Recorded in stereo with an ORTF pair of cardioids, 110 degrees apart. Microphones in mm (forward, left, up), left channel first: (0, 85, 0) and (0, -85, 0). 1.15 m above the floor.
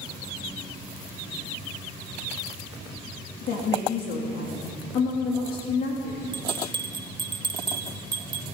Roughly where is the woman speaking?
Ahead left.